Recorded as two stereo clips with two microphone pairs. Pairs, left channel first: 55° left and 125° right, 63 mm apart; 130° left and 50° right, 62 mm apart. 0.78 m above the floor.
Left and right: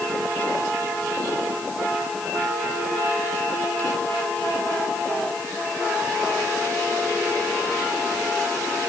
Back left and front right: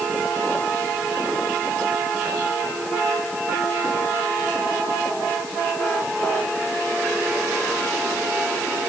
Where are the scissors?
No scissors in this recording.